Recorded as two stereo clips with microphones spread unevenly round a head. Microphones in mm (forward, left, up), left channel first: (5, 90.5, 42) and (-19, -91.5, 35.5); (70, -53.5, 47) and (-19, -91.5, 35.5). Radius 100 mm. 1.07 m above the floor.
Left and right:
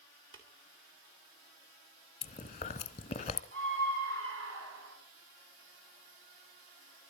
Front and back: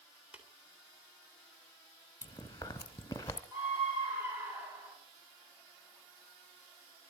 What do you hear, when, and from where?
0.3 s tapping: 80° right, 3 m
2.2 s chewing: 60° left, 1.0 m
3.5 s a scream: 85° right, 9.5 m